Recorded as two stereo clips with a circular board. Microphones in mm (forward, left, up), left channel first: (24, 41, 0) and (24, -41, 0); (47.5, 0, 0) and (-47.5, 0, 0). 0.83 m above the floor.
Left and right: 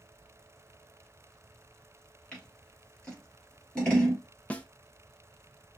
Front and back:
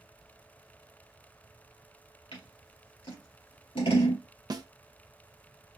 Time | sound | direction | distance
2.3 | scissors | 15° left | 3 m
4.5 | a snare drum | 155° left | 0.5 m